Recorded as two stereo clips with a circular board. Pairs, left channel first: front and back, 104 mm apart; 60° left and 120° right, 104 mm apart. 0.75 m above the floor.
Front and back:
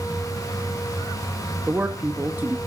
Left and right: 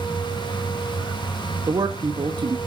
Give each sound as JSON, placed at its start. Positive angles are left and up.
{"t": 1.7, "sound": "a man speaking", "azimuth_deg": -120, "distance_m": 1.0}